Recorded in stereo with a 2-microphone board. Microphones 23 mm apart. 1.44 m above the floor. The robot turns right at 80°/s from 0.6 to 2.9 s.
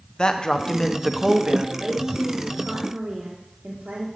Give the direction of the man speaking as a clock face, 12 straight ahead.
7 o'clock.